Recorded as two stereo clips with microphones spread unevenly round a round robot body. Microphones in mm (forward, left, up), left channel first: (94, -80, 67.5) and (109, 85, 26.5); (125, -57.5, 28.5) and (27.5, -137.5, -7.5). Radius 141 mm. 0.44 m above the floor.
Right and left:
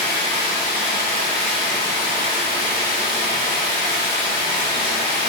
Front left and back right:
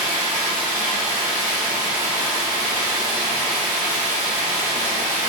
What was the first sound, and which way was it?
Running water, 110° right.